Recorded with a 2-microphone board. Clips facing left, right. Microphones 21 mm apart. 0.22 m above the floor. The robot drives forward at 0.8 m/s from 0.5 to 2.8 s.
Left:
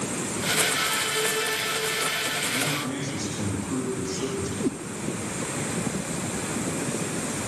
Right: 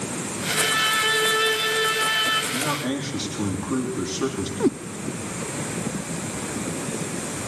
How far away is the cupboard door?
No cupboard door in this recording.